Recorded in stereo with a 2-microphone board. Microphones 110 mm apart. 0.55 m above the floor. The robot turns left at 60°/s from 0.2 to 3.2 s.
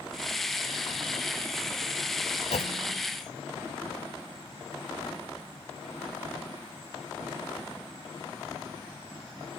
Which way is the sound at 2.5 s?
85° left.